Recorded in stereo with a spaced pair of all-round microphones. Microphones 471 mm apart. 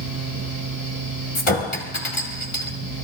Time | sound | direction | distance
0.0 | a fan | 40° right (ahead or behind) | 4.5 m
1.4 | a clink | 85° left | 2 m